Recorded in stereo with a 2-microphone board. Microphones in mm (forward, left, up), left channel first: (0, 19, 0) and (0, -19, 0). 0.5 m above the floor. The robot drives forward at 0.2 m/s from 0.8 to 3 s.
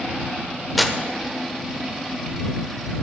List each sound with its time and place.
0.8 s tearing paper: centre (ahead or behind), 0.8 m